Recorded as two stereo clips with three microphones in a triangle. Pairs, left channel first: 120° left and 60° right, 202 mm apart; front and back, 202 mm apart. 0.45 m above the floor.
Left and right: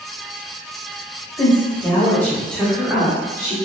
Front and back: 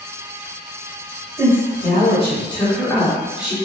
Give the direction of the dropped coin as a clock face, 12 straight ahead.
I don't hear a dropped coin.